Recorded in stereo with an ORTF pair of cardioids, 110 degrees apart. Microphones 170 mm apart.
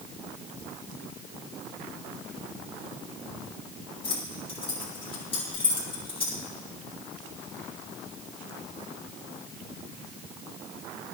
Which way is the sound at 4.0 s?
30° left.